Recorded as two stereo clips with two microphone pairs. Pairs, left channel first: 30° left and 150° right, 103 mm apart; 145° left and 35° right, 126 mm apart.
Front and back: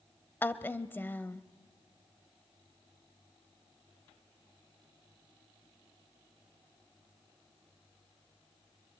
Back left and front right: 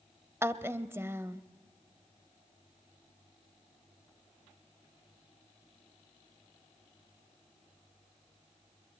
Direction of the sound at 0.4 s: 5° right.